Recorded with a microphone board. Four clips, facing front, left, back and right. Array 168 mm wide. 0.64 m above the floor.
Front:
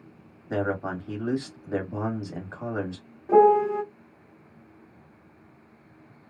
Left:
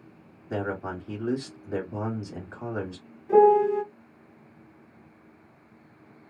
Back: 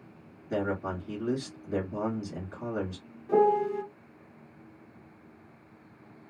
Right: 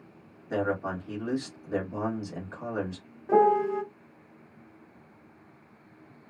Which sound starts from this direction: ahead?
A man speaking, at 0.5 s.